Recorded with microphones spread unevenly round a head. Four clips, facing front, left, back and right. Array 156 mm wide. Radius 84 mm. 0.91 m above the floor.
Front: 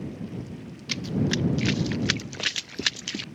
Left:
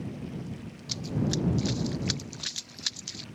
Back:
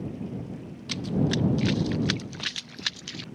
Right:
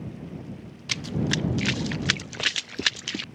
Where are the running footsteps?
60° right; by 3.2 s 50° right.